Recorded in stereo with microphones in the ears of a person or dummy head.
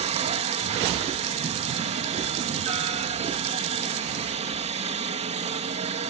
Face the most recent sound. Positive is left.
turn(degrees=-40)  # may be behind; listen again after turning